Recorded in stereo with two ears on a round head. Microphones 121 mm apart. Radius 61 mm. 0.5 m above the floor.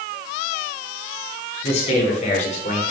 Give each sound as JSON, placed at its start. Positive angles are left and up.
{"t": 1.6, "sound": "a man speaking", "side_deg": 50, "distance_m": 4.0}